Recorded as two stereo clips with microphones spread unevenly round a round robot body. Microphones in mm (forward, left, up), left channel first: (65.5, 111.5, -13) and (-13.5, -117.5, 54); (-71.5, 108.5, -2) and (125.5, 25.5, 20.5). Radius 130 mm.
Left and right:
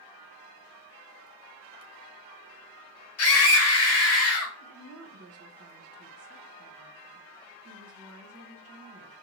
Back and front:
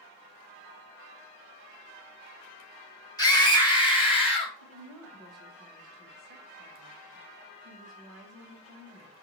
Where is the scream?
85° left, 2.0 m; by 4.5 s 95° left, 3 m.